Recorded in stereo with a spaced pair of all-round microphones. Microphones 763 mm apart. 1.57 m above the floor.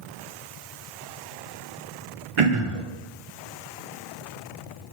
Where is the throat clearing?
45° right (ahead or behind), 0.6 m.